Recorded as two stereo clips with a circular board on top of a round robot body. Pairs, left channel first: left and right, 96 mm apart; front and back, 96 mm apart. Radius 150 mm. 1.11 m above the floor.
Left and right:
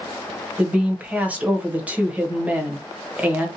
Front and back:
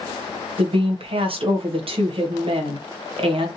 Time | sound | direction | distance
0.6 | a woman speaking | 165° right | 0.9 m